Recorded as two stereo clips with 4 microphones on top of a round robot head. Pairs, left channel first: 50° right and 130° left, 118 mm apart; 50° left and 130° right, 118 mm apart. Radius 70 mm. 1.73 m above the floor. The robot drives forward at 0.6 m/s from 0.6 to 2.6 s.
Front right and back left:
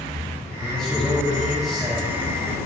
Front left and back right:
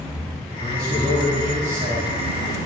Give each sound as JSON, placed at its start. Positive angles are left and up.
{"t": 0.6, "sound": "a man speaking", "azimuth_deg": -130, "distance_m": 3.5}